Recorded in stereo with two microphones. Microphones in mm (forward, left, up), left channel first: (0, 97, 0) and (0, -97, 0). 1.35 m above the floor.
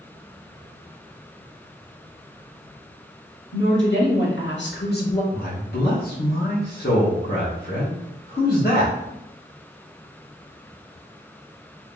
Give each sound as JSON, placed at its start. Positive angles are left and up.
{"t": 3.5, "sound": "a woman speaking", "side_deg": 80, "distance_m": 1.8}
{"t": 5.3, "sound": "a man speaking", "side_deg": 55, "distance_m": 1.0}